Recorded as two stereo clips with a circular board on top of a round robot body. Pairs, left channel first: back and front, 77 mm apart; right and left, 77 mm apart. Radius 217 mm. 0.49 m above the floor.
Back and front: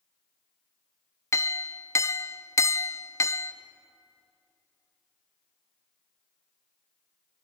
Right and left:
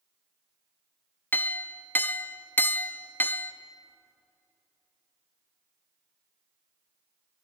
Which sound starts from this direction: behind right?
A clink, at 1.3 s.